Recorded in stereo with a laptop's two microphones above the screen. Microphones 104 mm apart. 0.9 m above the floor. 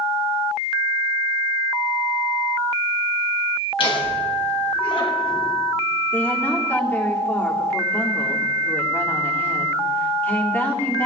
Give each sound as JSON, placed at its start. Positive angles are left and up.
{"t": 3.8, "sound": "laughter", "side_deg": 55, "distance_m": 7.5}
{"t": 6.1, "sound": "a woman speaking", "side_deg": 20, "distance_m": 3.0}